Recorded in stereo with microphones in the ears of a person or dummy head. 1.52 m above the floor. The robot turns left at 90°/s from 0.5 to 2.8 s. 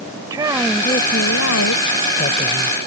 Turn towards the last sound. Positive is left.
turn(degrees=-15)